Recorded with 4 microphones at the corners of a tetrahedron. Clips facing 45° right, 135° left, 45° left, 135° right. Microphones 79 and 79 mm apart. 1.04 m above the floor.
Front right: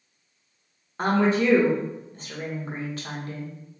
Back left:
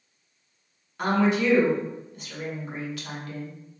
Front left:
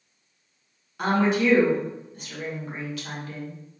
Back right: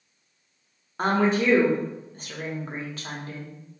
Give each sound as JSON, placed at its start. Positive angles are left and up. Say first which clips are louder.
{"t": 1.0, "sound": "a woman speaking", "louder": "front right 1 dB, even", "azimuth_deg": -90, "distance_m": 1.0}